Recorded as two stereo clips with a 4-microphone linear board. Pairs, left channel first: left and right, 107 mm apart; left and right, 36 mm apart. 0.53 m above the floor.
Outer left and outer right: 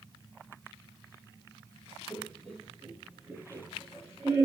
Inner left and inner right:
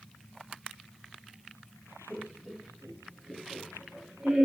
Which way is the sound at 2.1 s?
5° left (ahead or behind).